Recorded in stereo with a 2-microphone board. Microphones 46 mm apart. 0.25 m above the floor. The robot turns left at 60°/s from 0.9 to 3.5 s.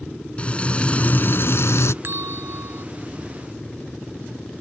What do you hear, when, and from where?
0.4 s frying: 150° left; by 1.9 s 90° left
2.0 s a bell: 60° right; by 2.9 s 110° right